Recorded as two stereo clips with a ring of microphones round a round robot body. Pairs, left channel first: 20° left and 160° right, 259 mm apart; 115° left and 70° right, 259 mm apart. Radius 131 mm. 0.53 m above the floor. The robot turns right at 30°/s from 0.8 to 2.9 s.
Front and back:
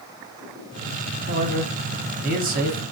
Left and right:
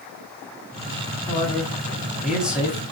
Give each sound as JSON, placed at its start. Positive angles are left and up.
{"t": 1.3, "sound": "a man speaking", "azimuth_deg": 175, "distance_m": 1.1}